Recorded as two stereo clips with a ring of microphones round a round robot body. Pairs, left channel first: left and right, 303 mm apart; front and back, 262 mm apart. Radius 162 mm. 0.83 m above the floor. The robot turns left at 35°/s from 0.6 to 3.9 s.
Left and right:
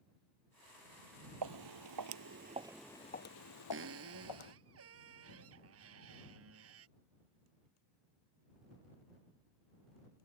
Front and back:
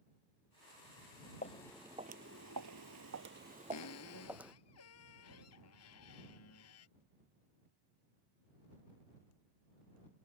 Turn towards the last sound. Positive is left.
turn(degrees=-45)